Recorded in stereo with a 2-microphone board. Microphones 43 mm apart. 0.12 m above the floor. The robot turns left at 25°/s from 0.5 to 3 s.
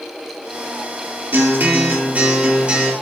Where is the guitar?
115° right, 2.5 m; by 2.9 s 155° right, 2.5 m.